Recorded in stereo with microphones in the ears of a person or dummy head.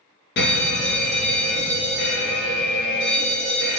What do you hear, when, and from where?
0.4 s a fire alarm: 55° left (ahead or behind), 1.2 m